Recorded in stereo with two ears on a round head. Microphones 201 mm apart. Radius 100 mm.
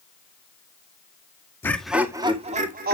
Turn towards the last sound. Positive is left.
turn(degrees=-45)  # may be behind; listen again after turning